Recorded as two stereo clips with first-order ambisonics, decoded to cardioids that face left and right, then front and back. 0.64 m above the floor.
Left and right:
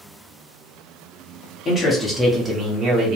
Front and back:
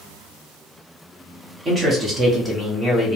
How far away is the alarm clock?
No alarm clock in this recording.